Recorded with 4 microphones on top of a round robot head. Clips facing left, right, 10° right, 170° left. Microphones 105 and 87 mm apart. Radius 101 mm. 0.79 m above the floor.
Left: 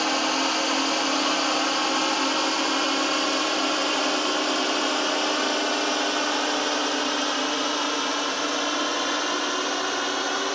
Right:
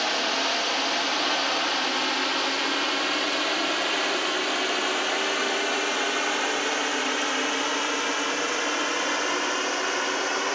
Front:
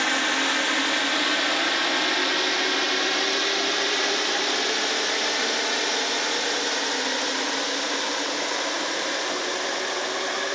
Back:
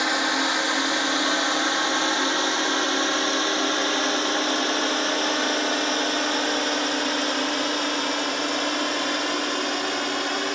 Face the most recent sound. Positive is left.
turn(degrees=160)